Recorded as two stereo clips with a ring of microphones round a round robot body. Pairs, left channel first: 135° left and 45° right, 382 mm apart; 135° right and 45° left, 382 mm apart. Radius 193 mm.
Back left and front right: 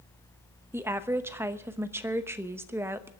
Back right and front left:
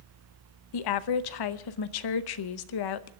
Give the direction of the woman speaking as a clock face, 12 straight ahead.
4 o'clock.